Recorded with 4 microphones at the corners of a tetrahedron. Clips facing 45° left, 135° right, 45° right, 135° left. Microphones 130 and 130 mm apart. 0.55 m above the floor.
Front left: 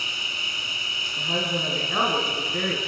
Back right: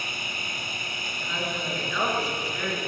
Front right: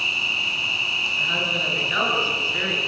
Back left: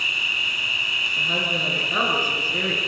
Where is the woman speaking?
85° left, 7 m.